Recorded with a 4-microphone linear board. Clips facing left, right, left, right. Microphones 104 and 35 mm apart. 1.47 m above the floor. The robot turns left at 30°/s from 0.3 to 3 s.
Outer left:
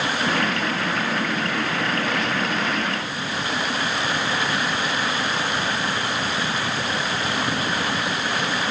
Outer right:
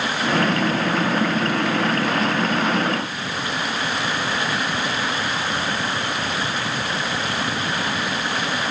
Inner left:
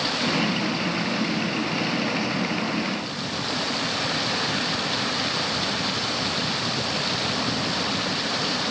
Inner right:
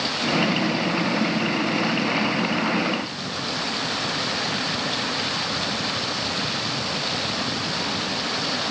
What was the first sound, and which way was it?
Only background noise.